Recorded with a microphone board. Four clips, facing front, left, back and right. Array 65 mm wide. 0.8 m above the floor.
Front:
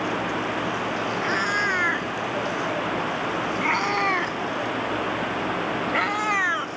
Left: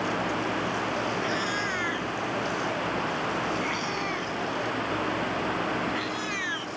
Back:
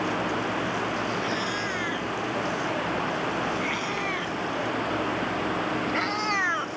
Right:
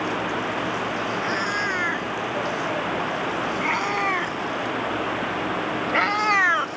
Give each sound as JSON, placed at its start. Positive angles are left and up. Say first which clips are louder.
{"t": 1.2, "sound": "a cat meowing", "louder": "right 4 dB, front 5 dB", "azimuth_deg": -25}